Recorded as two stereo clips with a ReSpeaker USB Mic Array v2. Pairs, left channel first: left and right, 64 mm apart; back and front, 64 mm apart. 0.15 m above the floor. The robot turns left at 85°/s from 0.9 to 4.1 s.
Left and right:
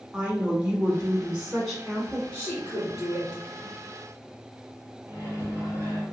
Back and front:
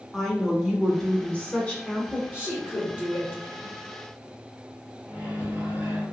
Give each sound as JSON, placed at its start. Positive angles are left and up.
{"t": 0.1, "sound": "a woman speaking", "azimuth_deg": -110, "distance_m": 1.1}
{"t": 2.3, "sound": "a woman speaking", "azimuth_deg": 40, "distance_m": 1.7}
{"t": 5.1, "sound": "a microwave", "azimuth_deg": -65, "distance_m": 1.3}